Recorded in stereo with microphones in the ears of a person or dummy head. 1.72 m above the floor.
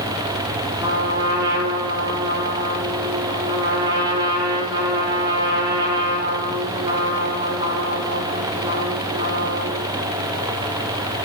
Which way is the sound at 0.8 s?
20° right (ahead or behind).